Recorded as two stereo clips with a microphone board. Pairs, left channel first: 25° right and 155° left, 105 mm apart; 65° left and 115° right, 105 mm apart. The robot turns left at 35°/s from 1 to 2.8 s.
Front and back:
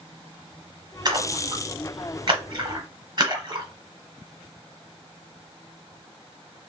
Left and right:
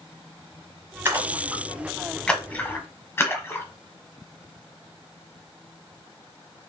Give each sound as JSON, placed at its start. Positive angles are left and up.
{"t": 1.1, "sound": "a splash", "azimuth_deg": -175, "distance_m": 1.0}